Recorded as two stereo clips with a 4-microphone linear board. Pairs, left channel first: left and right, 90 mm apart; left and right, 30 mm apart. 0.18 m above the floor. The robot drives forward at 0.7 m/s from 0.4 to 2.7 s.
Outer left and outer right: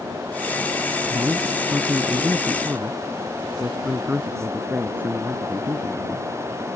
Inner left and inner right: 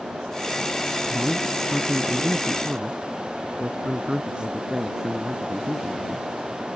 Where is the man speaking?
30° right (ahead or behind); by 6.3 s 20° right (ahead or behind).